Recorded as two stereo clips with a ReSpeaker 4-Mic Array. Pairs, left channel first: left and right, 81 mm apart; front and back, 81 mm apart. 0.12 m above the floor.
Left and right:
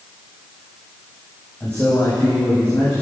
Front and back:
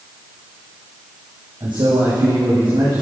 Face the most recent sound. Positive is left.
turn(degrees=155)